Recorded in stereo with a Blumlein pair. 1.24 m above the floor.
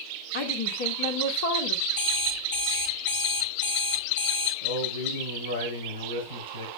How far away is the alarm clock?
About 9.5 m.